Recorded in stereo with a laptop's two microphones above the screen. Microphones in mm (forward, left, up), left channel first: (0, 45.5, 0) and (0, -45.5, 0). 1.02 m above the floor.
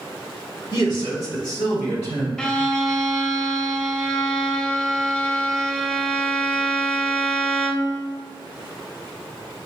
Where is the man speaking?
50° left (ahead or behind), 1.7 m; by 2.3 s 30° left (ahead or behind), 3 m.